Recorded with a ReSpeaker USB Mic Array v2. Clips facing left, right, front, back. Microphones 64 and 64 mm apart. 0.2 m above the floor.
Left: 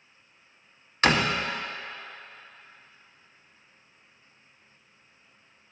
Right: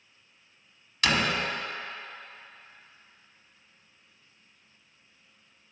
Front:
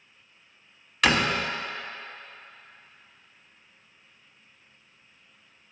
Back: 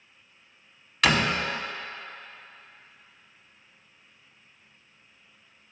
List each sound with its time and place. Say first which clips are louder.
1.0 s a door slam: left 3 dB, even; 85° left, 0.9 m